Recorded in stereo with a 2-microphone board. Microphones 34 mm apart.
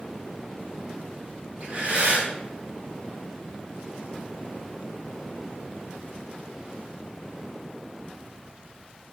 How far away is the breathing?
About 2 m.